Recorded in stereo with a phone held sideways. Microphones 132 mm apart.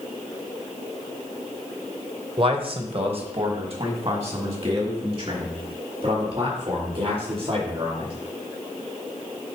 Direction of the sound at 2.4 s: 40° right (ahead or behind).